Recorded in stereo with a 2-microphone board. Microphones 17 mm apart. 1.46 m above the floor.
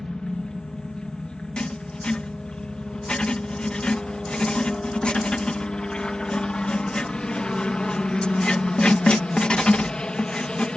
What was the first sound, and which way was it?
A helicopter, 60° left (ahead or behind).